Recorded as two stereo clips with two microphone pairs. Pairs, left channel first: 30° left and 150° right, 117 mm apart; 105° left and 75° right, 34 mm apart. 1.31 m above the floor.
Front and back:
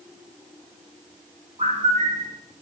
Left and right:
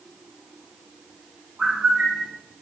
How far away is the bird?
About 2.5 m.